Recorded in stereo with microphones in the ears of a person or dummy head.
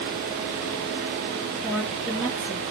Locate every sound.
1.6 s a woman speaking: 5° right (ahead or behind), 1.1 m